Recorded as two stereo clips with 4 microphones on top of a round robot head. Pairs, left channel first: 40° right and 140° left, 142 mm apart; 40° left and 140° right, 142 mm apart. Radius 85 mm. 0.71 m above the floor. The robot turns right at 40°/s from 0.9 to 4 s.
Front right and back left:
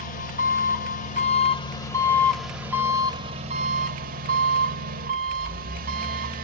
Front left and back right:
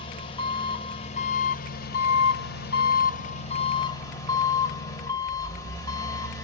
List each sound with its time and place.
0.0 s an engine running: 10° right, 1.7 m; by 6.5 s 110° left, 1.7 m